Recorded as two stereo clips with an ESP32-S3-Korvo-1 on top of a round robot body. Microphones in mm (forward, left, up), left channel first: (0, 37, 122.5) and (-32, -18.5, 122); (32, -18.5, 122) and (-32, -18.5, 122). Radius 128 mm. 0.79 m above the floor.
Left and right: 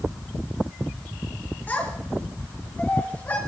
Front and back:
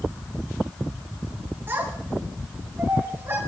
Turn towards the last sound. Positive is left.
turn(degrees=125)